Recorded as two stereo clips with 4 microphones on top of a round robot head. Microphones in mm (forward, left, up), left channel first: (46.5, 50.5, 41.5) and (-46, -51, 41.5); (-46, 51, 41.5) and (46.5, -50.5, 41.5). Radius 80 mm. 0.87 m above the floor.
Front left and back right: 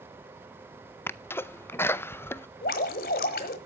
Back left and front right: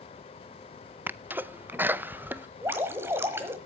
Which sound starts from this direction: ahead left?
Dripping, at 2.6 s.